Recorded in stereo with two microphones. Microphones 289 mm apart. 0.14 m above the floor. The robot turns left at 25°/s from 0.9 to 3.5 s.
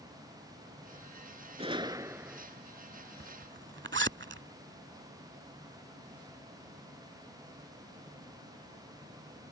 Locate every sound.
1.6 s a gunshot: 20° right (ahead or behind); by 2.5 s 5° right (ahead or behind)
3.2 s a zipper: 45° right (ahead or behind); by 4.4 s 40° right (ahead or behind)